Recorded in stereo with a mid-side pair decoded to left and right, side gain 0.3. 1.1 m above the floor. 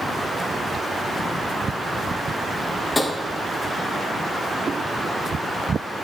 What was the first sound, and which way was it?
Tapping, 35° left.